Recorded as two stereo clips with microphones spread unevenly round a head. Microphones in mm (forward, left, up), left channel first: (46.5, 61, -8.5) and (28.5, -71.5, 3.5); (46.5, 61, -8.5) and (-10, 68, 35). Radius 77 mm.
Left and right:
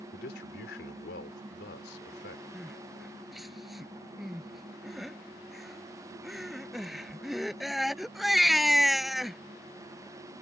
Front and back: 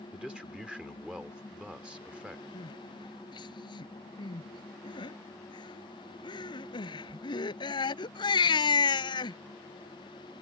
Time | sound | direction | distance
0.1 | a man speaking | 95° left | ?
2.5 | crying | 10° right | ?